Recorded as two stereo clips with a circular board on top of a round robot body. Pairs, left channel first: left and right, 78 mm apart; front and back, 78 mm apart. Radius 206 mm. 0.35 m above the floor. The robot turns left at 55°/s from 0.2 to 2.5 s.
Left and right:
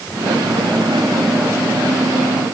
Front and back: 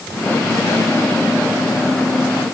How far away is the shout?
I don't hear a shout.